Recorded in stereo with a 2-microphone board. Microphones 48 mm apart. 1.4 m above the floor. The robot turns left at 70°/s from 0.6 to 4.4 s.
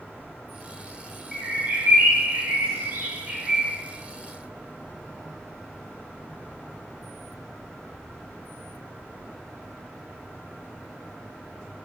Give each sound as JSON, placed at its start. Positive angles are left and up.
{"t": 1.3, "sound": "a bird", "azimuth_deg": -15, "distance_m": 0.6}